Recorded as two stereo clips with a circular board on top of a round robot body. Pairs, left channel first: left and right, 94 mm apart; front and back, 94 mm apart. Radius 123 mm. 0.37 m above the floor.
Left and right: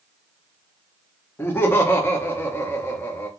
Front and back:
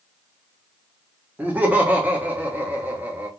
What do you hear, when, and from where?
1.4 s laughter: 125° left, 1.0 m